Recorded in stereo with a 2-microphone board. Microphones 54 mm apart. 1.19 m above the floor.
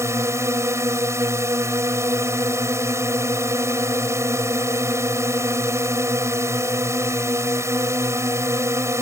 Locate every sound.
0.0 s a drone: 60° right (ahead or behind)